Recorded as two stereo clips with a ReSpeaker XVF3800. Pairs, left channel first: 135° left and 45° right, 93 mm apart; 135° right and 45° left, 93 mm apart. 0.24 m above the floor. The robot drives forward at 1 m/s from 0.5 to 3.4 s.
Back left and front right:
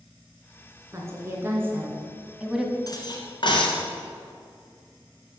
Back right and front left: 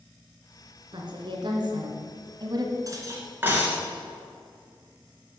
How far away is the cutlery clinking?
About 1.7 m.